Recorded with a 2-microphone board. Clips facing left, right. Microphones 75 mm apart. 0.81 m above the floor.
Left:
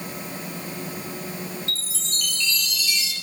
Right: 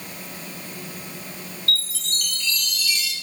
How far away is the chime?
About 2.5 m.